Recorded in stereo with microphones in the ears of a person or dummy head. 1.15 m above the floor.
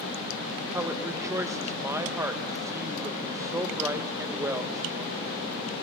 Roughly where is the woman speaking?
Centre.